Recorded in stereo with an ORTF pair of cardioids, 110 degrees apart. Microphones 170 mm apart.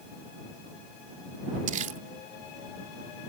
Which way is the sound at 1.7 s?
50° right.